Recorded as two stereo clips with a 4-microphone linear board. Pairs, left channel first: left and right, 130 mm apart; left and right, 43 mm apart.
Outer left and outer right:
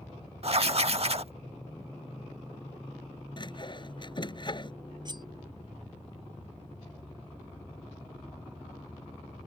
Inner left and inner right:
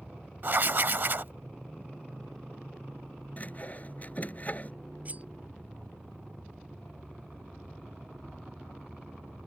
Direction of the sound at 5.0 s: 35° right (ahead or behind).